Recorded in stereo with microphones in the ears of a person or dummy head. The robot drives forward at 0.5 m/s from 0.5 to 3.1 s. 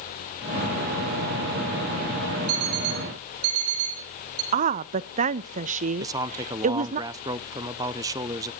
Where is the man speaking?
15° right (ahead or behind), 0.6 m.